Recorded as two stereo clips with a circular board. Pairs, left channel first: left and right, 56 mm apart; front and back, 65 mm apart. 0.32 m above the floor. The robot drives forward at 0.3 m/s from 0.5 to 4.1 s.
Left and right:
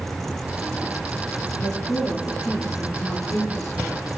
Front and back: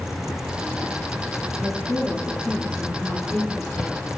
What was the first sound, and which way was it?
A woman speaking, 85° left.